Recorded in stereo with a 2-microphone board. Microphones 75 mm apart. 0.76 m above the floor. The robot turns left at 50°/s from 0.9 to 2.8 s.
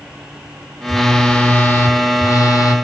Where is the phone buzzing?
Straight behind, 1.5 m; by 2.8 s 85° left, 1.5 m.